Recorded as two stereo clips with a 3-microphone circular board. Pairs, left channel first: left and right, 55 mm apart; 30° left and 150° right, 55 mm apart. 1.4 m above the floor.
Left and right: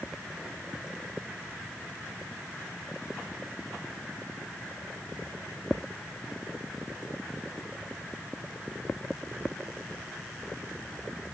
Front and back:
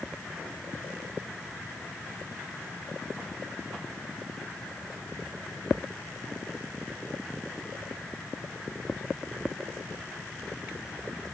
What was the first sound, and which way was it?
Only background noise.